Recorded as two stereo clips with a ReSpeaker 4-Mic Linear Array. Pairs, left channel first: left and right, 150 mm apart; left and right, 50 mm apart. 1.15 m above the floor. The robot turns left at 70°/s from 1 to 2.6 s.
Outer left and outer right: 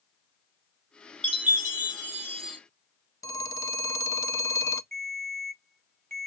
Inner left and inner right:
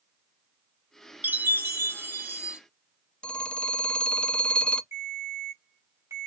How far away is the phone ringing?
About 0.6 m.